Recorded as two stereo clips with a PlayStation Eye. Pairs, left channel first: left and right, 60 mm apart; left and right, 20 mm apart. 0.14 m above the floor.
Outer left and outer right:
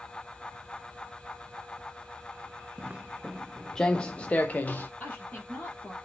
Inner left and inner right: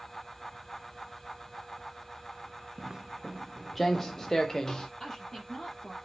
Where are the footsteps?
30° right (ahead or behind), 0.6 m; by 4.9 s 30° left (ahead or behind), 1.3 m.